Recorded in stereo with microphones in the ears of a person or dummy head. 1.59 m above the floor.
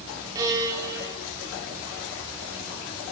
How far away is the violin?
About 6 m.